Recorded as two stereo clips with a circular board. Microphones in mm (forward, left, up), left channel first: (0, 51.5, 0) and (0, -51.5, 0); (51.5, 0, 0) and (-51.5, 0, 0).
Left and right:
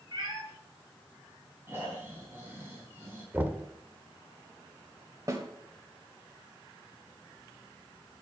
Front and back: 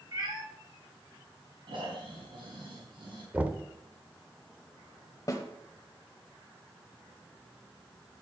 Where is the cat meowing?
140° right, 3 m.